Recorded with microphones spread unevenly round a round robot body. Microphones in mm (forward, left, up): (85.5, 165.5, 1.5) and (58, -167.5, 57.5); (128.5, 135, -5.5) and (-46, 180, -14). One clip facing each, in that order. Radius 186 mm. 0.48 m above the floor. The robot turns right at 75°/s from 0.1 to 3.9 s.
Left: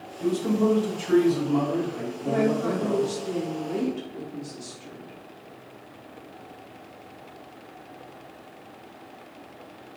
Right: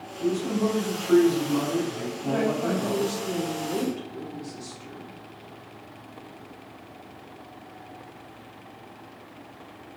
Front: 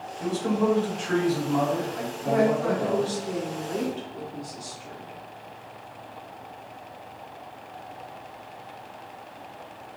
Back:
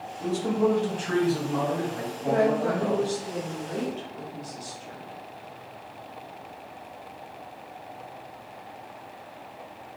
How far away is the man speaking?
About 1.8 m.